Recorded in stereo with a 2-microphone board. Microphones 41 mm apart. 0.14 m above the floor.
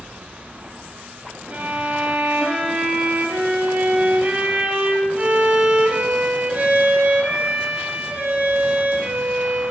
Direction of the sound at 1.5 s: 35° right (ahead or behind).